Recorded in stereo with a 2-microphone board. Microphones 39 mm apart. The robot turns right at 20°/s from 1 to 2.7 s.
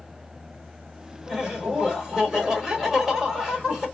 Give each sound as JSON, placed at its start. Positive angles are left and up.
{"t": 1.3, "sound": "laughter", "side_deg": -20, "distance_m": 1.3}